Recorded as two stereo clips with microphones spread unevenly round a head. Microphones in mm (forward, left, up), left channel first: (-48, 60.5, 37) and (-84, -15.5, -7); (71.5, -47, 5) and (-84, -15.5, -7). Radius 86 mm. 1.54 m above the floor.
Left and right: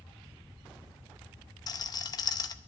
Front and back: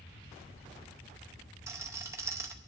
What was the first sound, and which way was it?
A rattle, 90° left.